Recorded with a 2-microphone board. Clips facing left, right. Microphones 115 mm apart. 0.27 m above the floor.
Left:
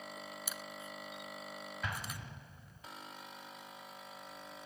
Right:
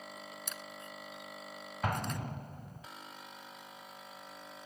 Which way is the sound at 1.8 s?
50° right (ahead or behind).